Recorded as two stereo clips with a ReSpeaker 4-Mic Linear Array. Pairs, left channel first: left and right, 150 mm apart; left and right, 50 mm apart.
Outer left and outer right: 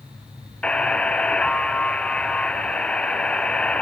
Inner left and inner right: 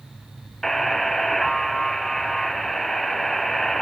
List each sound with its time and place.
0.6 s a buzzer: 10° left (ahead or behind), 0.7 m